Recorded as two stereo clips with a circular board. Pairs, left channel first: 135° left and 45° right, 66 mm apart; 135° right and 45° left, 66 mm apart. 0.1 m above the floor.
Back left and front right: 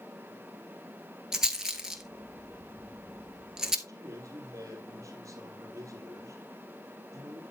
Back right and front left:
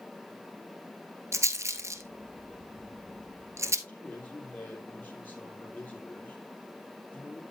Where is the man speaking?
75° right, 3.5 m.